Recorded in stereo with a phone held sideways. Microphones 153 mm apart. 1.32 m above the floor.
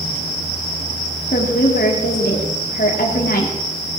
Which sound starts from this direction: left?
A woman speaking, at 1.3 s.